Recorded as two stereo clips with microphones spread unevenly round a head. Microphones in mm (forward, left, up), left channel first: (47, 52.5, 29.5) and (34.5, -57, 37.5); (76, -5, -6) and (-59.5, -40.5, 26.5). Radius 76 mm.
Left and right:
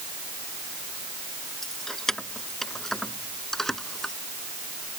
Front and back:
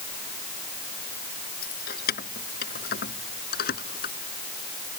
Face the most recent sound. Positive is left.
turn(degrees=-5)